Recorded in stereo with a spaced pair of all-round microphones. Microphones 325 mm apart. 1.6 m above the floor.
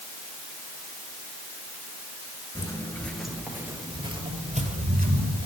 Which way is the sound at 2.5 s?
15° left (ahead or behind).